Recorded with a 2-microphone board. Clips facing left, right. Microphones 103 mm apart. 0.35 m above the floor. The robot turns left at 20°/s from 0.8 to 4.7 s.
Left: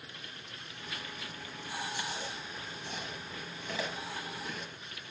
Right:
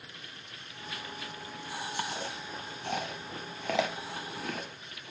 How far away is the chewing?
About 0.6 m.